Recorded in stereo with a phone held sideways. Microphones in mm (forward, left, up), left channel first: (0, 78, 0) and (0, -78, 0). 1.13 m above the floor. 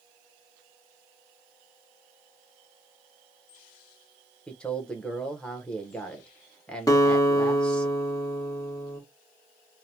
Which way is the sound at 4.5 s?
5° left (ahead or behind).